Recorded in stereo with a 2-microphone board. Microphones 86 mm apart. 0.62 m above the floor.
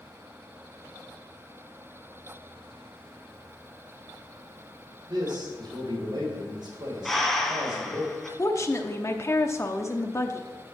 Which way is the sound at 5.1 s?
60° right (ahead or behind).